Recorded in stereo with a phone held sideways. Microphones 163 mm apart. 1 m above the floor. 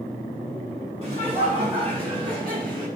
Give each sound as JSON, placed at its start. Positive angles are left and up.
{"t": 1.0, "sound": "laughter", "side_deg": -40, "distance_m": 7.5}